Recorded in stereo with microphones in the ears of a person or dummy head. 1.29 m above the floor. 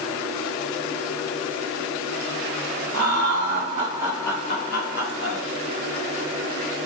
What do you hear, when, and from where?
2.9 s laughter: 60° right (ahead or behind), 1.0 m; by 5.4 s 70° left (ahead or behind), 1.0 m